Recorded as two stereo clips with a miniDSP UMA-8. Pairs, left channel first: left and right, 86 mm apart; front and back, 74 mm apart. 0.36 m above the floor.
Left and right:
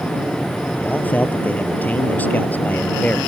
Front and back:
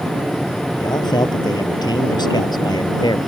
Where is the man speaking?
20° left.